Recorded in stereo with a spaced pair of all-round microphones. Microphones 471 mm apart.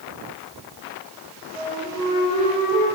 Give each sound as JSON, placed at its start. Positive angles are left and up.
{"t": 1.5, "sound": "a flute", "side_deg": -40, "distance_m": 4.0}